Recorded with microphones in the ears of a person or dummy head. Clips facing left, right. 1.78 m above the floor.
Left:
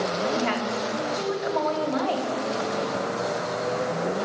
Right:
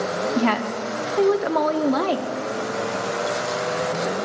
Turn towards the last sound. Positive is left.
turn(degrees=-70)  # may be behind; listen again after turning